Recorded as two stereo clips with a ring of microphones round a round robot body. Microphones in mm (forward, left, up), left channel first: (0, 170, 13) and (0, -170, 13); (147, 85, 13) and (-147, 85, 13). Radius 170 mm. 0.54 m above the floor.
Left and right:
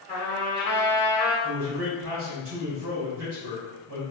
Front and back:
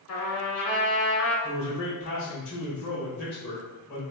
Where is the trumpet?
10° left, 1.7 m.